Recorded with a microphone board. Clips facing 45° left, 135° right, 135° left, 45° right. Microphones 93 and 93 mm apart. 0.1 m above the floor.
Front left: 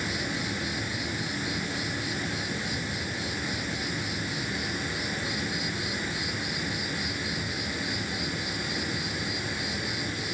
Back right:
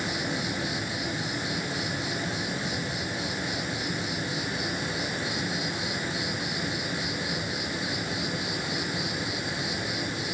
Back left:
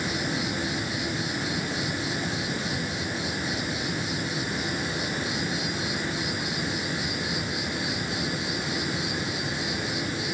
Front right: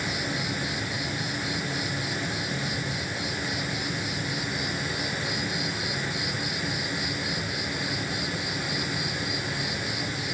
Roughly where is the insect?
Behind.